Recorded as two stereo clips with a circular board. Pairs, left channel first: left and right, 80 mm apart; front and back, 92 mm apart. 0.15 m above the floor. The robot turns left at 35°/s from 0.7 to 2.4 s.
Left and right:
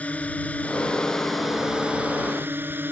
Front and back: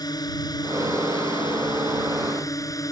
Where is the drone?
25° left; by 2.9 s 35° right.